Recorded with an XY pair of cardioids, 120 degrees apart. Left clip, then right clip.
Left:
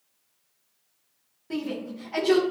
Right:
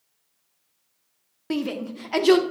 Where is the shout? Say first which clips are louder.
Right 4 dB; 70° right, 1.3 m.